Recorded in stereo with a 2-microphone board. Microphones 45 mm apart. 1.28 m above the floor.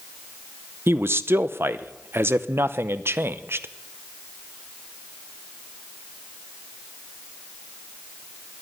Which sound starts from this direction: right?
A man speaking, at 0.9 s.